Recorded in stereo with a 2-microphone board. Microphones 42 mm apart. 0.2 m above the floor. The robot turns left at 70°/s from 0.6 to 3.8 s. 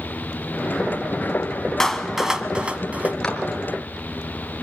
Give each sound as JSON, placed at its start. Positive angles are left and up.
{"t": 1.8, "sound": "a clap", "side_deg": 10, "distance_m": 1.5}
{"t": 3.2, "sound": "a clap", "side_deg": 20, "distance_m": 2.5}